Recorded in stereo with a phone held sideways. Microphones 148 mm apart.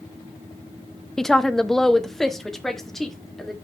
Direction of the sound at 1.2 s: 5° left (ahead or behind).